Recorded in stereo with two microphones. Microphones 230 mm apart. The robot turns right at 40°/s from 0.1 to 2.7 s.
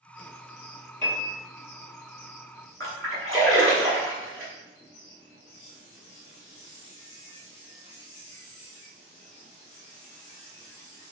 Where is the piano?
20° right (ahead or behind), 2 m; by 1.4 s 35° right (ahead or behind), 2 m.